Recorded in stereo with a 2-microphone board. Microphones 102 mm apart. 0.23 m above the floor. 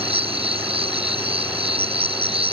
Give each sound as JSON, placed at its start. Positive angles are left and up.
{"t": 0.0, "sound": "an insect", "side_deg": -65}